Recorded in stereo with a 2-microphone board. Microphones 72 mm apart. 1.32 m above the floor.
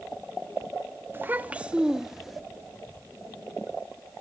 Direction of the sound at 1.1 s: 30° right (ahead or behind).